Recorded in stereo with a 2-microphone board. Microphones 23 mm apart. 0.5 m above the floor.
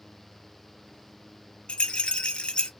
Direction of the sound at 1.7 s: 50° left (ahead or behind).